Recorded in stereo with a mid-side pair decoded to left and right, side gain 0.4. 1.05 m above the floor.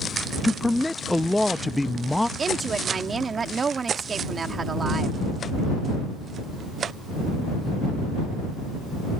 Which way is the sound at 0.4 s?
10° left.